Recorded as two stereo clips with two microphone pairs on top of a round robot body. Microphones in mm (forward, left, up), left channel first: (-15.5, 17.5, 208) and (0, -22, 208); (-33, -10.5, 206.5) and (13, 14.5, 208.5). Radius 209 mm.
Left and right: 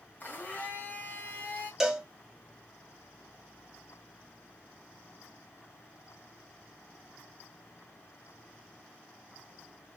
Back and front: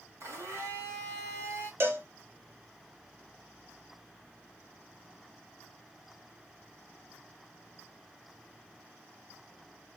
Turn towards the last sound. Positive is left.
turn(degrees=10)